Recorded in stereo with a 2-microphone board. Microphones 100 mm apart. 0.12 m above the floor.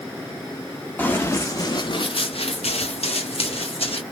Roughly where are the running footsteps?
Centre.